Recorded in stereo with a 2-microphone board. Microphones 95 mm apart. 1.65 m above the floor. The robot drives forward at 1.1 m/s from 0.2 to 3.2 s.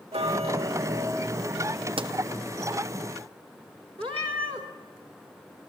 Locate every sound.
0.1 s ticking: 75° right (ahead or behind), 0.7 m; by 1.9 s 20° right (ahead or behind), 2 m
2.0 s a pop: 60° right (ahead or behind), 0.8 m
4.0 s a cat meowing: 70° right (ahead or behind), 2.5 m